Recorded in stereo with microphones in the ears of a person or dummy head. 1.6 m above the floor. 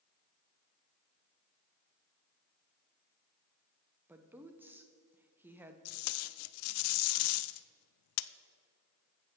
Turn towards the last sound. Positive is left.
turn(degrees=80)